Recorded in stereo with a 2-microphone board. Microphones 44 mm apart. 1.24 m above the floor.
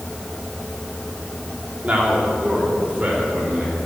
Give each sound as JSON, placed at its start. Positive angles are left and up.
{"t": 1.8, "sound": "a man speaking", "side_deg": -30, "distance_m": 3.5}